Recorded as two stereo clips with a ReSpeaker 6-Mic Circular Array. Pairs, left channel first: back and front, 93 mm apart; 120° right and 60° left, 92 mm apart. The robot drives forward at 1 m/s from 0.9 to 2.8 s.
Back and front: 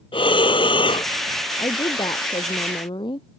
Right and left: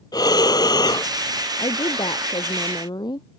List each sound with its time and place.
0.1 s breathing: 160° right; by 1.1 s 165° right
1.6 s a woman speaking: 145° right; by 3.2 s 155° right